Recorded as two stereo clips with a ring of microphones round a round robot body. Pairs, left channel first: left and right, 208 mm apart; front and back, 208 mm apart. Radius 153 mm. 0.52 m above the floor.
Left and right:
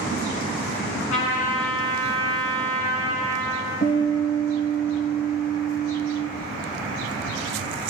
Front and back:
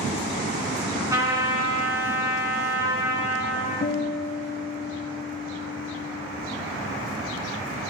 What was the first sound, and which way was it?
A trumpet, 105° left.